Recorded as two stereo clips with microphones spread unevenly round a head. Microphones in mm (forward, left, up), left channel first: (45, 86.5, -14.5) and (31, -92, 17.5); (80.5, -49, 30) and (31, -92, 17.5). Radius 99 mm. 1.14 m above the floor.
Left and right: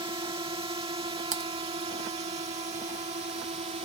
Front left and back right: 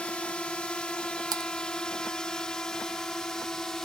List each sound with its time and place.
0.0 s a drone: 30° right; by 3.9 s 40° right
1.3 s typing on a keyboard: 155° right